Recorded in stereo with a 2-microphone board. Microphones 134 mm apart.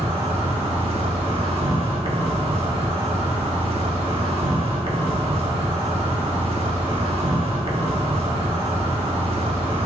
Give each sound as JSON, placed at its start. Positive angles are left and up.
{"t": 0.0, "sound": "an insect", "side_deg": -45, "distance_m": 1.5}